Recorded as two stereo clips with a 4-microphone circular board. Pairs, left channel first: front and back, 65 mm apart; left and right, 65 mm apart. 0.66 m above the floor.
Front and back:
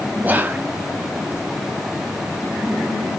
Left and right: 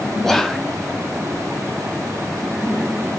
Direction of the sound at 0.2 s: 170° left.